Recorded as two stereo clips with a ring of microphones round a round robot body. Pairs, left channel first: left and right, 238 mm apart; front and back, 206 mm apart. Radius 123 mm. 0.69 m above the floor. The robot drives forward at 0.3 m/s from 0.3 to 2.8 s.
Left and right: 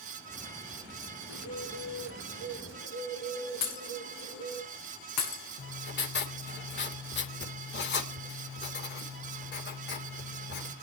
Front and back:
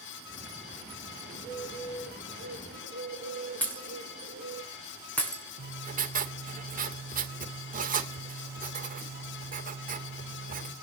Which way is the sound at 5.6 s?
135° left.